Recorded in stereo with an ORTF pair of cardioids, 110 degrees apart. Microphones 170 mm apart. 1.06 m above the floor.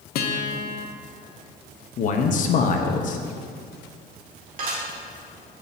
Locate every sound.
0.1 s a guitar: 70° left, 0.8 m
2.0 s a man speaking: 50° left, 0.9 m
4.6 s dishes clattering: 55° right, 2 m